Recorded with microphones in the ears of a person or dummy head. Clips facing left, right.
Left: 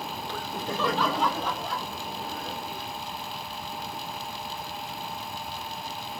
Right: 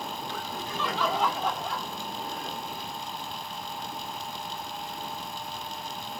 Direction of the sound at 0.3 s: 45° left (ahead or behind).